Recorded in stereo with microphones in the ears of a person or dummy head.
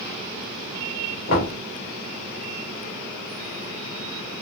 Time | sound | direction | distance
1.3 | knocking | 55° left (ahead or behind) | 2 m